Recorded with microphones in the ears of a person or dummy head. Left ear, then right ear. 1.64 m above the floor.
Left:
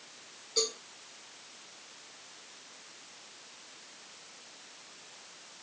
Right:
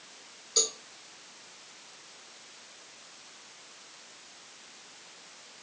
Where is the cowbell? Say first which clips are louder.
Right 2 dB; 40° right (ahead or behind), 3.5 m.